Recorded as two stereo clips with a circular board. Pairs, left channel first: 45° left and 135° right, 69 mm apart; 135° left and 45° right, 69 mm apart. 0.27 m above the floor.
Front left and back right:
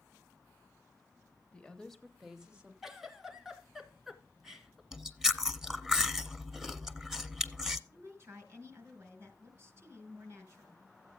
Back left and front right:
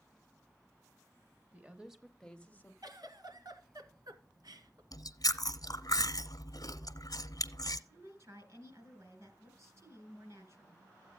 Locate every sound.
1.5 s a woman speaking: 10° right, 1.1 m; by 2.7 s 170° left, 1.2 m
2.8 s a giggle: 50° right, 1.6 m
4.9 s chewing: 145° left, 0.8 m
7.9 s a woman speaking: 80° right, 3.5 m